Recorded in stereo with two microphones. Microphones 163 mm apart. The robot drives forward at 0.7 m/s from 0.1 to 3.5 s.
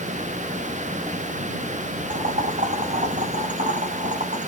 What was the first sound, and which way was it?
Boiling, 50° right (ahead or behind).